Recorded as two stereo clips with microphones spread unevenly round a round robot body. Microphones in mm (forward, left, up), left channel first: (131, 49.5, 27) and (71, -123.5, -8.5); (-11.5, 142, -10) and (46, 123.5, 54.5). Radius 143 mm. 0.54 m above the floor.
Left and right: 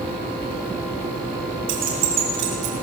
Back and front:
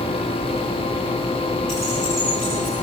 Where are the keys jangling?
120° right, 4 m.